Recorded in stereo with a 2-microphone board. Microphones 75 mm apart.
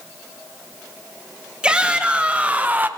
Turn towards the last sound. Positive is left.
turn(degrees=-25)  # may be behind; listen again after turning